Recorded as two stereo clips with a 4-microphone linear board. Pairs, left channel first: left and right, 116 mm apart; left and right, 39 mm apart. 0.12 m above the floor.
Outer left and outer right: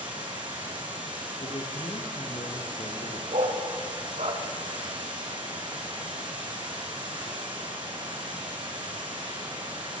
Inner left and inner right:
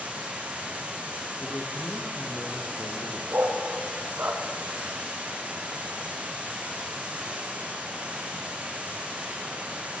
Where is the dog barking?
65° right (ahead or behind), 5 m.